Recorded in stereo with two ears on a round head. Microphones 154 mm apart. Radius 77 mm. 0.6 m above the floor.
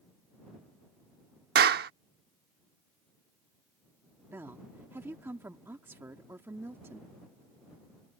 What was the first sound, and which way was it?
A clap, 60° right (ahead or behind).